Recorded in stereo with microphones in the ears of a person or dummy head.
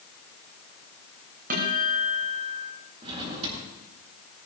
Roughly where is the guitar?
Right.